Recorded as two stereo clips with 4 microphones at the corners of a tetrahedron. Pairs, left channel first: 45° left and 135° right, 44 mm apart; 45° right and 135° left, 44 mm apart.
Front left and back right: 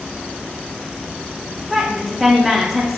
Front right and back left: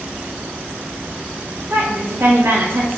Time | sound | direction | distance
1.7 | a woman speaking | 140° left | 0.5 m